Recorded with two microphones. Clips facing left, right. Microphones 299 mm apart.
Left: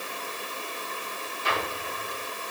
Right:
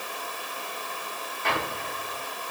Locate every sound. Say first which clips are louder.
1.4 s an explosion: right 1 dB; 65° right (ahead or behind), 8.5 m